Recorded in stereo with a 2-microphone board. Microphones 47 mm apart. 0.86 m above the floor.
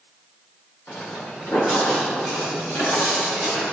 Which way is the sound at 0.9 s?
65° left (ahead or behind).